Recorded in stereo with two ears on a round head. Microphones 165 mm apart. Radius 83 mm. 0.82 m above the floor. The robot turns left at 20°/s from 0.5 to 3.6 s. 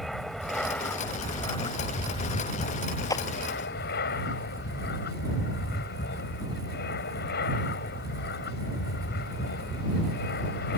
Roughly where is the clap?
Centre.